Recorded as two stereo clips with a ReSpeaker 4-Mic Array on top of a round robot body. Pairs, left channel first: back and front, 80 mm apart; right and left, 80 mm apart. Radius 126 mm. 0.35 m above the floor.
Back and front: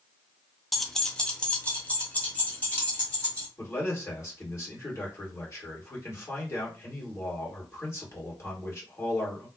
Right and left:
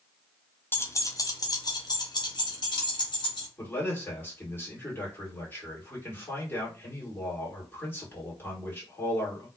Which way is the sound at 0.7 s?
90° right.